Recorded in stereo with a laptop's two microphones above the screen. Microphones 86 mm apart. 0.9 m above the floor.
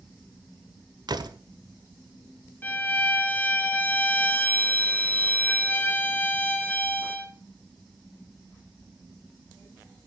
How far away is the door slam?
About 1.8 m.